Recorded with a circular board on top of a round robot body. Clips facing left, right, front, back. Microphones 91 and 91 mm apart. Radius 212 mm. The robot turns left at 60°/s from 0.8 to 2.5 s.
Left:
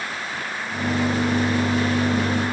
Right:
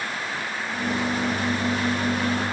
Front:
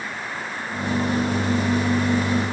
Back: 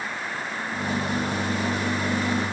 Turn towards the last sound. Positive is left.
No sound to turn to.